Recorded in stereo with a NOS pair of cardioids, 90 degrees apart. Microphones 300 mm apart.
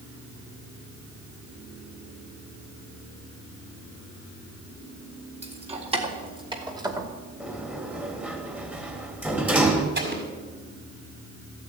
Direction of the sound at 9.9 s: 35° right.